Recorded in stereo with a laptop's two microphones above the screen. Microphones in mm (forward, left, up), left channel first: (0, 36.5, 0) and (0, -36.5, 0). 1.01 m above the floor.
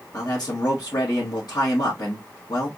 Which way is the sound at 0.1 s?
70° left (ahead or behind).